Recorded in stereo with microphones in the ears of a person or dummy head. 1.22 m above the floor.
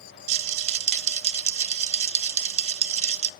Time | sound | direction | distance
0.3 | a rattle | 40° right (ahead or behind) | 0.5 m